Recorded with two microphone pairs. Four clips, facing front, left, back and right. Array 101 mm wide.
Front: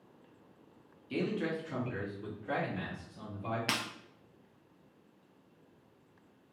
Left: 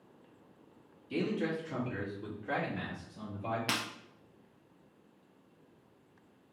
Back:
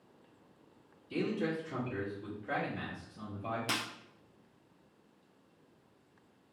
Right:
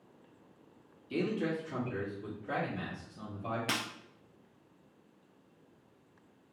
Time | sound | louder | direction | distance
1.1 | a man speaking | even, even | 5° right | 1.3 m
3.7 | breaking glass | even, front 1 dB | 15° left | 1.5 m